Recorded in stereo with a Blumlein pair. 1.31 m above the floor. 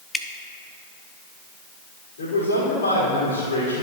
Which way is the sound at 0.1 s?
10° left.